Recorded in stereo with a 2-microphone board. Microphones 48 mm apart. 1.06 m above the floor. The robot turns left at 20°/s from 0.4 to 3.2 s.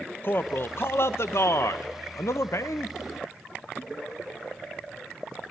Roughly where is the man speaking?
Behind left.